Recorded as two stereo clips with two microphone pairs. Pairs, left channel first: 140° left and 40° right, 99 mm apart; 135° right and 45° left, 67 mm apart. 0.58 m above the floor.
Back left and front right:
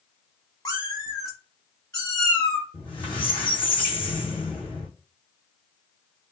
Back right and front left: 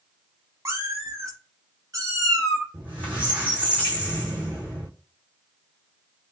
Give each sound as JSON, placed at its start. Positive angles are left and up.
{"t": 0.7, "sound": "a cat meowing", "azimuth_deg": 90, "distance_m": 0.9}
{"t": 2.7, "sound": "a squeak", "azimuth_deg": 115, "distance_m": 1.7}